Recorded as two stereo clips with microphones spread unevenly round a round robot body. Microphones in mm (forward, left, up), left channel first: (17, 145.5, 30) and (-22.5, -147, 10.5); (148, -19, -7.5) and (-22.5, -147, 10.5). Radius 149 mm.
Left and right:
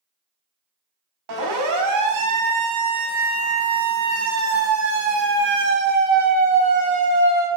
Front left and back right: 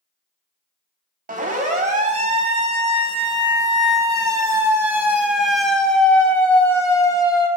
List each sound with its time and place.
1.3 s a siren: 90° right, 4.5 m; by 7.5 s 30° right, 4 m